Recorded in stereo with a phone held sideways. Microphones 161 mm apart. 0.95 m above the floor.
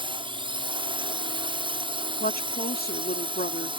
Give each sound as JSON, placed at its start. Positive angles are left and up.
{"t": 0.0, "sound": "a drone", "side_deg": -30}
{"t": 2.2, "sound": "a woman speaking", "side_deg": 70}